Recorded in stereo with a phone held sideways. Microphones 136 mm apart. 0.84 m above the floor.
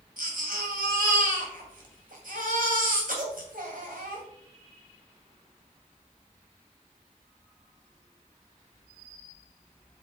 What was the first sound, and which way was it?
A baby crying, 80° right.